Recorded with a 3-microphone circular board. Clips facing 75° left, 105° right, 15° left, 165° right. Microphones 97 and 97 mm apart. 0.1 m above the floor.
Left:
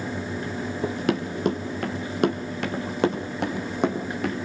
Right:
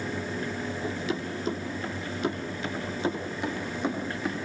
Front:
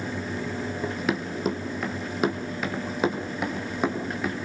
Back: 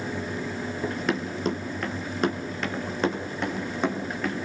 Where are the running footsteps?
100° left, 3 m; by 4.3 s 95° left, 5.5 m.